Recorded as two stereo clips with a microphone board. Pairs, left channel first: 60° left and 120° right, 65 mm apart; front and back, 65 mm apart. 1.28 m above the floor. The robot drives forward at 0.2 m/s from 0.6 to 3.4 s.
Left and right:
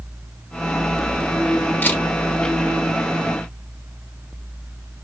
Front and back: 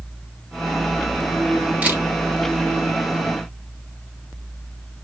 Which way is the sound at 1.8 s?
115° left.